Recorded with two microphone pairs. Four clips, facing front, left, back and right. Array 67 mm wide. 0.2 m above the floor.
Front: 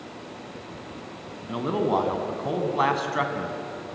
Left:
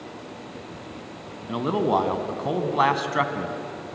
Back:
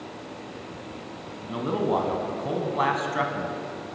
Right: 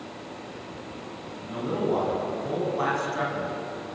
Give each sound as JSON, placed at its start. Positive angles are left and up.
{"t": 1.5, "sound": "a man speaking", "azimuth_deg": 80, "distance_m": 1.9}